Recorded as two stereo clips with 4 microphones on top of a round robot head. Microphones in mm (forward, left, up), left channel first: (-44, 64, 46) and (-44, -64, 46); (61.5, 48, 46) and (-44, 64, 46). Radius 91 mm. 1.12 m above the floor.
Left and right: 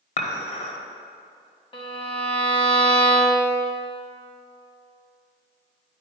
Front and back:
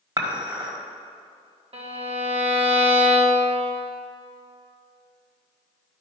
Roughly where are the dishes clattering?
Behind left.